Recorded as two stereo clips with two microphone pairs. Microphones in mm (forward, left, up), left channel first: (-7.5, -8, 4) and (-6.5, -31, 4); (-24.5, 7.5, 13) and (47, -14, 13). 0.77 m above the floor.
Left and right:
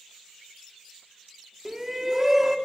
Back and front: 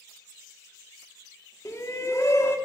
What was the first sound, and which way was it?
A shout, 155° right.